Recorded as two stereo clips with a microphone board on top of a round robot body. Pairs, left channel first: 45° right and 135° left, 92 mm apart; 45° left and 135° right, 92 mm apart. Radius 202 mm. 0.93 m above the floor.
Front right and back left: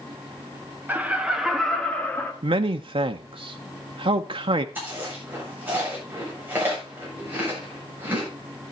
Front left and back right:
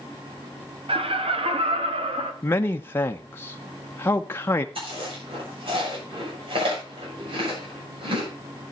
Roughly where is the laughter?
Behind right.